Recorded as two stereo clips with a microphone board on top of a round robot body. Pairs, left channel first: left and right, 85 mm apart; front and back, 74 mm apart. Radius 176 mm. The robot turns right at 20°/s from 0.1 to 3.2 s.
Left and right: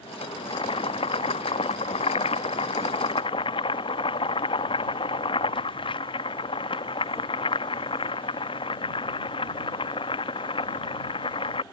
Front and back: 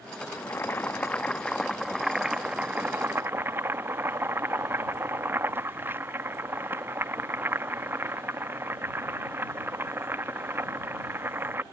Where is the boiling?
60° left; by 11.6 s 115° left.